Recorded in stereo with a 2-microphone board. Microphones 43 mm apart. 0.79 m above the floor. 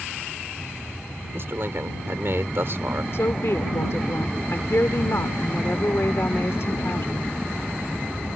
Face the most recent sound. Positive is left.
turn(degrees=65)  # may be behind; listen again after turning